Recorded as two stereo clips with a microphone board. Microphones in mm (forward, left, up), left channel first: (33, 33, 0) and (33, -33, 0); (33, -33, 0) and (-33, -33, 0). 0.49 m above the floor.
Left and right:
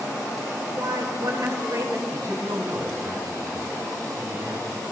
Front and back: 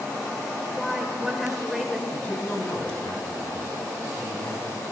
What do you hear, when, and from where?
0.8 s a woman speaking: 95° right, 2 m
2.1 s a man speaking: 50° right, 4.5 m